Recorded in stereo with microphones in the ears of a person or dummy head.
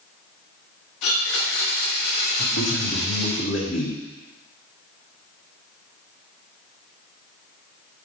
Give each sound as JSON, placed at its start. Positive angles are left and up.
{"t": 1.0, "sound": "a blender", "side_deg": 65, "distance_m": 1.3}
{"t": 2.4, "sound": "a man speaking", "side_deg": 70, "distance_m": 2.5}